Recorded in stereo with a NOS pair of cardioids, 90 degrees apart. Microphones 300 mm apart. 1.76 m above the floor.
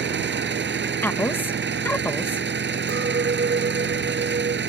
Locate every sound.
0.0 s an engine running: 35° right
1.0 s a woman speaking: 5° left
2.9 s a clink: 35° right